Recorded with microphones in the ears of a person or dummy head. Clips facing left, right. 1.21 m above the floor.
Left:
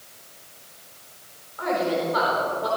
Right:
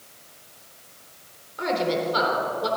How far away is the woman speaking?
About 4 m.